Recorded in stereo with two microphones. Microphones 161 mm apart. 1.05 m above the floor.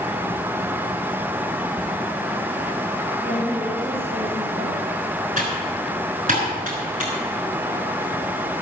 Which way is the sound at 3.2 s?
70° right (ahead or behind).